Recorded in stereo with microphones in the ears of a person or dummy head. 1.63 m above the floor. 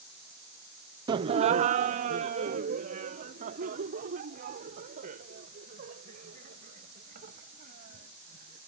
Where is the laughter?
20° right (ahead or behind); by 8.6 s 45° right (ahead or behind).